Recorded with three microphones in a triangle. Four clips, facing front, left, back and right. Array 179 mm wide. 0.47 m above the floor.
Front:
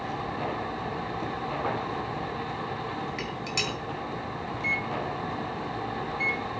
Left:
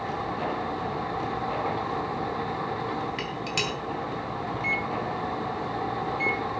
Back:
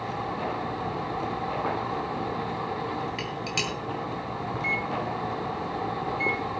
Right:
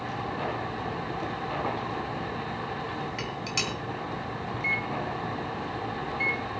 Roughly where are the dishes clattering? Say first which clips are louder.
Left 2 dB, back 1 dB; behind left.